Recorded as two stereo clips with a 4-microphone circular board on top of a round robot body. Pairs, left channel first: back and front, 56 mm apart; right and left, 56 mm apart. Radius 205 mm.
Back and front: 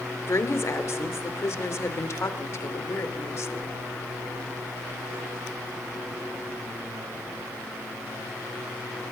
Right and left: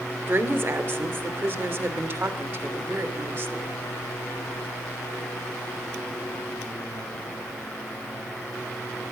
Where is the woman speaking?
140° left, 2.5 m.